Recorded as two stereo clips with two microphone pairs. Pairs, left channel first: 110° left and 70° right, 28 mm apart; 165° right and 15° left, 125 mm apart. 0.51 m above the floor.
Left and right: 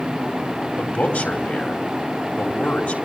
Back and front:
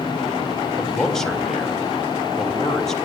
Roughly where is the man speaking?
Left.